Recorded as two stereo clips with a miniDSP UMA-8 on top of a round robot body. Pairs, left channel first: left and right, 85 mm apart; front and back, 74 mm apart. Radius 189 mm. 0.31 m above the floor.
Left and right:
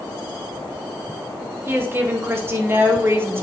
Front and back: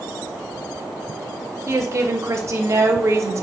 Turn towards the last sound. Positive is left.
turn(degrees=-145)